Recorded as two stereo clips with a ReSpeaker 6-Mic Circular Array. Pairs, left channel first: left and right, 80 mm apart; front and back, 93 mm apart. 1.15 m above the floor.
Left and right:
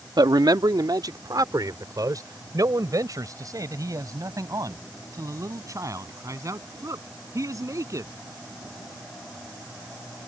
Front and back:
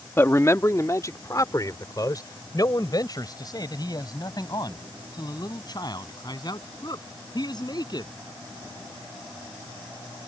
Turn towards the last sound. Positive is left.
turn(degrees=-40)